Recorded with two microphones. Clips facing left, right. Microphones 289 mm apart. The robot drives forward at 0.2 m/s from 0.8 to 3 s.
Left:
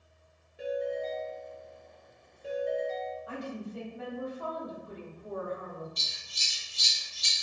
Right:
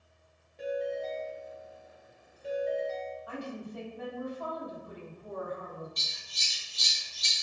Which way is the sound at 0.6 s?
10° left (ahead or behind).